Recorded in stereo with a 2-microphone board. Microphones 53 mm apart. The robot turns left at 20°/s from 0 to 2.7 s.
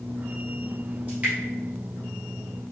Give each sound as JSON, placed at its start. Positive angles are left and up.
{"t": 1.1, "sound": "dripping", "side_deg": -30, "distance_m": 1.8}